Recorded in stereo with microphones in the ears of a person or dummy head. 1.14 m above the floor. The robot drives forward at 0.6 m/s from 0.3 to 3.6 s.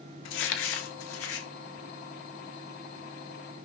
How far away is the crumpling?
About 1.9 m.